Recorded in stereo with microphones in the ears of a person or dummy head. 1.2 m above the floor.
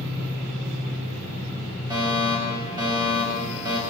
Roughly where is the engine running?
Right.